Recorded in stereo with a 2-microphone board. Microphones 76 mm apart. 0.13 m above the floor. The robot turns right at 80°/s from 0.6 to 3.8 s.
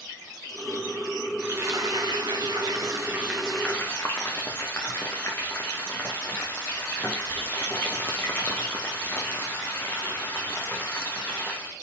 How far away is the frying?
About 2 m.